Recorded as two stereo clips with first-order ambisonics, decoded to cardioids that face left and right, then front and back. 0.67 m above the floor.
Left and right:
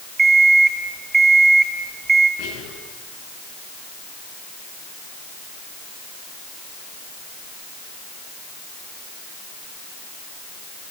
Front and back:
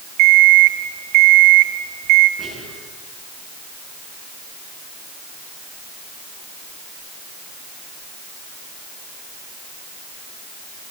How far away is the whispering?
About 9.5 m.